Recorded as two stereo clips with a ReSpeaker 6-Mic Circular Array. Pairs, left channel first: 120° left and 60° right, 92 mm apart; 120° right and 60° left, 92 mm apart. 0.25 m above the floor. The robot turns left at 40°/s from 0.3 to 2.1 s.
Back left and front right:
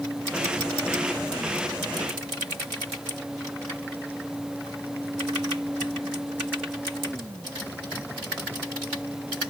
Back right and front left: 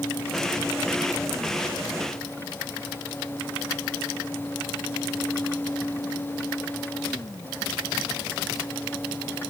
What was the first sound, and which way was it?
Only background noise.